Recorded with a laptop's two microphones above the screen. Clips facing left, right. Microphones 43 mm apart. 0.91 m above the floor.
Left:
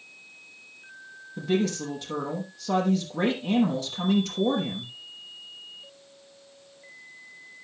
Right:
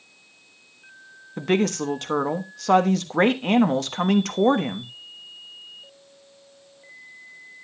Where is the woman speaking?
65° right (ahead or behind), 1.2 m.